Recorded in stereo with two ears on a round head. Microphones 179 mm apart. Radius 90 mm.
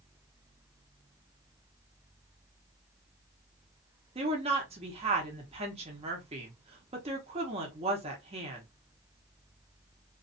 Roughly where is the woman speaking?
Right.